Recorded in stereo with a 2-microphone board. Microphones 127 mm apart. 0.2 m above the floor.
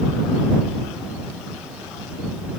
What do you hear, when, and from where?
Only background noise.